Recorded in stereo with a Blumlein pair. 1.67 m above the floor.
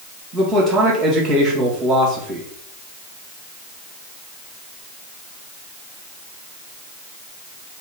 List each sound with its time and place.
0.3 s a man speaking: 25° right, 1.8 m